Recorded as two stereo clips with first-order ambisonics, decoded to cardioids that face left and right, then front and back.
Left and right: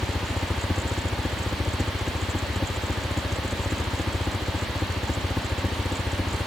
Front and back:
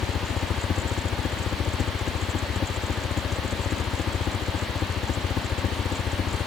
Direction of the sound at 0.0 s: 15° left.